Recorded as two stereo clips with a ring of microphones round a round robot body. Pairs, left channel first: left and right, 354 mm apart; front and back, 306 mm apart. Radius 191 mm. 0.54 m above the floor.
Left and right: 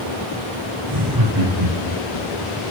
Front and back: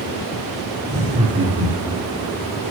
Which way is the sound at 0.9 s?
105° right.